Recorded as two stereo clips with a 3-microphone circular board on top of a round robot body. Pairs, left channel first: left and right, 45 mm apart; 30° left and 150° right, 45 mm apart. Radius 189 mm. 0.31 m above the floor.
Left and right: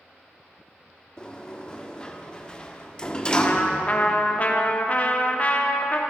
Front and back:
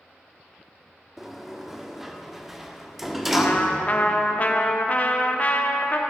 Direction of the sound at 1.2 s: 130° left.